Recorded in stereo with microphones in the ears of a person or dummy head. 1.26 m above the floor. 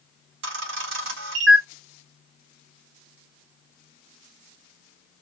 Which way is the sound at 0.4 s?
70° right (ahead or behind).